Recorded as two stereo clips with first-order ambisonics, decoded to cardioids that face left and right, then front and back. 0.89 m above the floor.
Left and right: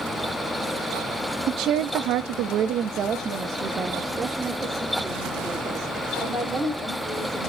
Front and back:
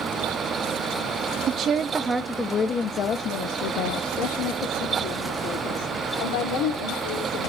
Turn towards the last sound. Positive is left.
turn(degrees=0)